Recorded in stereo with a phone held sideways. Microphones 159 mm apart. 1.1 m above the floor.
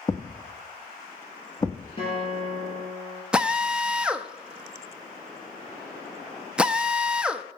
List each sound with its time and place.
0.1 s a thud: 25° left (ahead or behind), 0.6 m
2.0 s a guitar: 35° left (ahead or behind), 5.5 m
3.3 s a drill: 5° right (ahead or behind), 0.5 m